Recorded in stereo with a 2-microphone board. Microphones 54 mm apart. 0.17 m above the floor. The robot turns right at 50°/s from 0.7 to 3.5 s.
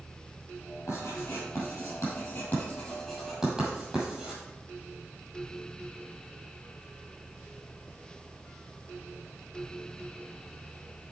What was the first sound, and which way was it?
Writing, 60° left (ahead or behind).